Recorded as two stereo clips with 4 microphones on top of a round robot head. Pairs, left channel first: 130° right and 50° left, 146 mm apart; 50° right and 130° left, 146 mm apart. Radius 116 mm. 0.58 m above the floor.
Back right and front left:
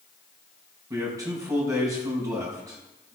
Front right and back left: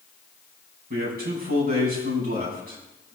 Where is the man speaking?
115° left, 5.5 m.